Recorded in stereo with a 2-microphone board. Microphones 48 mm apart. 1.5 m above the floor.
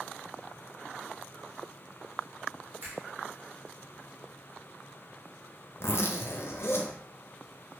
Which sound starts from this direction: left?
A zipper, at 5.8 s.